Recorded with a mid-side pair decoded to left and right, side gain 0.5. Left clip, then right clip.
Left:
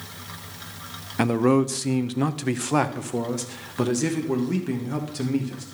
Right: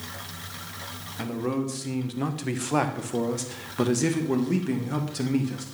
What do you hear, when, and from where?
1.2 s a man speaking: 65° left, 0.9 m; by 5.7 s 5° right, 2.5 m